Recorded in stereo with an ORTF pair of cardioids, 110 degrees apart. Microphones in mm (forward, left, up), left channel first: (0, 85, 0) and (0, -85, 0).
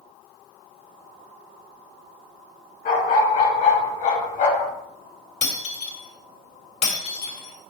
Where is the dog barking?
60° left, 5 m; by 4.7 s 65° left, 4 m.